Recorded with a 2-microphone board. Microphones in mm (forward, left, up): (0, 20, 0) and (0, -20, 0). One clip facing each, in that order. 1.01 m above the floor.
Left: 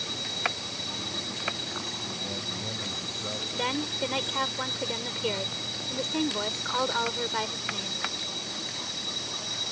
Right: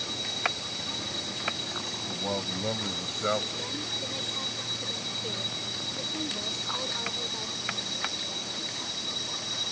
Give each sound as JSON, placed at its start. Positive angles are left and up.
{"t": 2.1, "sound": "a man speaking", "side_deg": -85}
{"t": 3.5, "sound": "a woman speaking", "side_deg": 80}